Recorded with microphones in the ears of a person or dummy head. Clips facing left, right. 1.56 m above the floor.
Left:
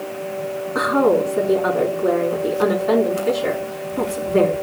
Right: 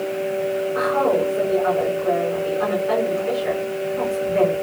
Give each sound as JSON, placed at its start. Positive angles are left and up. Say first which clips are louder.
{"t": 0.8, "sound": "a woman speaking", "louder": "left 4 dB", "side_deg": 70, "distance_m": 3.5}